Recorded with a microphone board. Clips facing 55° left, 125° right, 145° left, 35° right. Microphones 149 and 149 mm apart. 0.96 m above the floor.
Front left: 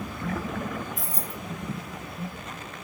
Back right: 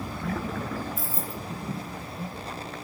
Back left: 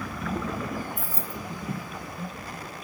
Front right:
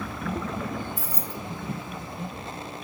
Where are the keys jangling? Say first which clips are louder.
Back right 1 dB, front right 1 dB; 35° right, 0.8 m.